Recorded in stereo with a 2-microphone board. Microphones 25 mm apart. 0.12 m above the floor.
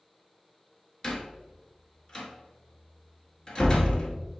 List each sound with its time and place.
1.0 s a door slam: 25° left (ahead or behind), 1.2 m